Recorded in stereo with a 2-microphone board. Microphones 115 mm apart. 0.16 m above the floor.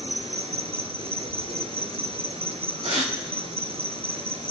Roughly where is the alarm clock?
No alarm clock in this recording.